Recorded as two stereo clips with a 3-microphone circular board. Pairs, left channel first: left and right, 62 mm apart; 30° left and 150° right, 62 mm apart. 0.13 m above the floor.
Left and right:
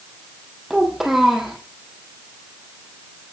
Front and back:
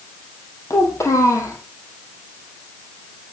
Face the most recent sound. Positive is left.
turn(degrees=-5)